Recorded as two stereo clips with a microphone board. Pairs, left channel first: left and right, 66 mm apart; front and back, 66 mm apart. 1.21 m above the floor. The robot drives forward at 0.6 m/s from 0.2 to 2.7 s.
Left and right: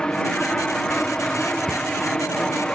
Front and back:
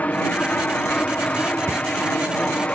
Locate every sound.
0.0 s an aircraft: 30° left; by 2.8 s 35° left
1.7 s a cupboard door: 175° right